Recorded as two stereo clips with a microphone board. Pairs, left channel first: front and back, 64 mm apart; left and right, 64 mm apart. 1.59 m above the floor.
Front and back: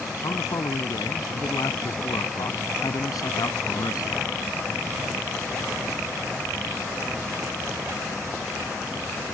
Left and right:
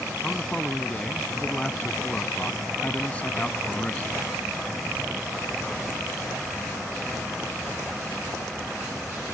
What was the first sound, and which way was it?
A man speaking, 10° left.